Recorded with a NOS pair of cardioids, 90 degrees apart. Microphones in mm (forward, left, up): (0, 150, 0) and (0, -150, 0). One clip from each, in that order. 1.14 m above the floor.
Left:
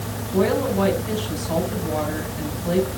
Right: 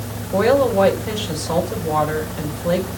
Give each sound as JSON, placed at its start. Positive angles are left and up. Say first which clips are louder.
{"t": 0.3, "sound": "a woman speaking", "louder": "right 6 dB", "azimuth_deg": -60, "distance_m": 5.0}